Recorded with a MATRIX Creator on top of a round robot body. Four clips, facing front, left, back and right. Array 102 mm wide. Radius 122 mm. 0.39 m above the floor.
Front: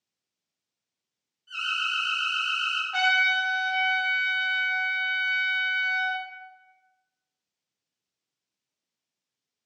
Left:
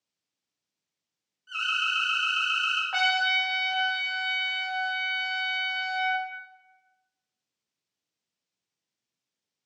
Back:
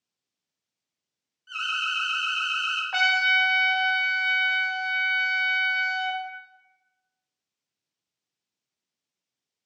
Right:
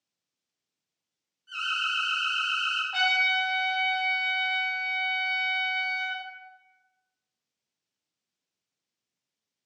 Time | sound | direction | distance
1.5 | an alarm | 165° left | 3 m
2.9 | a trumpet | 150° left | 0.9 m